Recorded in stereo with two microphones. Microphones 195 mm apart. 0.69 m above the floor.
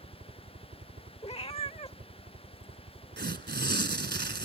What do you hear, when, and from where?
0.0 s a helicopter: 40° right (ahead or behind)
1.2 s a cat meowing: 30° left (ahead or behind)
3.2 s tearing paper: 60° right (ahead or behind)